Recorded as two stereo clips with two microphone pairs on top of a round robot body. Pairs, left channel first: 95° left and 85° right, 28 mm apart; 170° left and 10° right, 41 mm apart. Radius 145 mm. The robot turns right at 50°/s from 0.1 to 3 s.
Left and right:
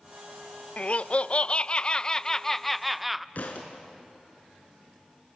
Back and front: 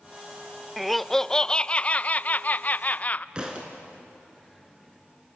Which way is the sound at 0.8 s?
80° left.